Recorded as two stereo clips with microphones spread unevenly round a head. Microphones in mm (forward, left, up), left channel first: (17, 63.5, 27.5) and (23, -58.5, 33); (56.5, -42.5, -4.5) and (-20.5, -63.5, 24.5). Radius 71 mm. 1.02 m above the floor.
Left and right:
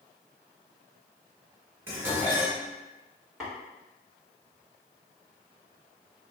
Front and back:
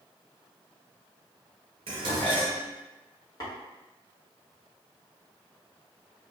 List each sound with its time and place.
1.9 s dishes clattering: 160° right, 0.7 m
3.4 s tapping: straight ahead, 1.6 m